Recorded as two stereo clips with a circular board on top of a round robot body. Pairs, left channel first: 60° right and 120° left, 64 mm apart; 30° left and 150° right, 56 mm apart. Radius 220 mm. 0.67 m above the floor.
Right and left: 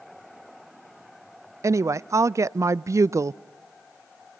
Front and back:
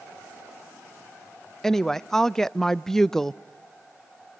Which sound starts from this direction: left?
A woman speaking, at 1.6 s.